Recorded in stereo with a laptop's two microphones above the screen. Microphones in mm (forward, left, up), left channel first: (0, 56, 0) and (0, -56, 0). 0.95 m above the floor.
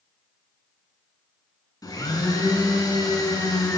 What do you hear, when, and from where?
1.8 s a blender: 35° left (ahead or behind), 2.5 m